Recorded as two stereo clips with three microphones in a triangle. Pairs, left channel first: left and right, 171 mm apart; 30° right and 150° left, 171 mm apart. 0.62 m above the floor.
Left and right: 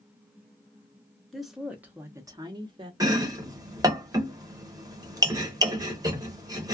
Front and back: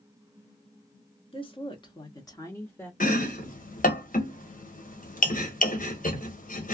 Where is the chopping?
25° right, 1.0 m.